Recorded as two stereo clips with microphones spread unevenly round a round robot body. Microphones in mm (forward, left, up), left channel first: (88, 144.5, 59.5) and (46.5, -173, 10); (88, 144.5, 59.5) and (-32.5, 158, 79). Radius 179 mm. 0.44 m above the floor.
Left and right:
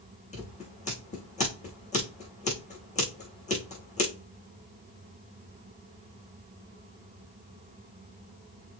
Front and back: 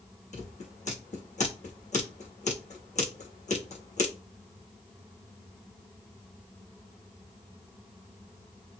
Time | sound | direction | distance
0.3 | scissors | 15° left | 5 m